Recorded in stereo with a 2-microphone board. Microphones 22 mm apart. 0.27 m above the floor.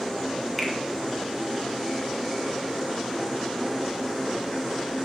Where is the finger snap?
10° left (ahead or behind), 1.2 m.